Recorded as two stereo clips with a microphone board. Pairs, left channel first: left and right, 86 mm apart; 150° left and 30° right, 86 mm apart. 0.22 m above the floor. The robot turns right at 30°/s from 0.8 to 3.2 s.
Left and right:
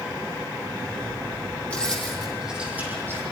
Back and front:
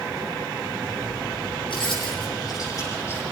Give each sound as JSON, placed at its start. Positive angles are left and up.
{"t": 1.7, "sound": "keys jangling", "azimuth_deg": 165, "distance_m": 6.5}